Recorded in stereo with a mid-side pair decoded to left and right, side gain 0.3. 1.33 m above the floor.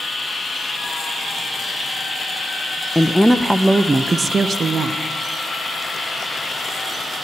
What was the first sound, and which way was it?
A woman speaking, 10° left.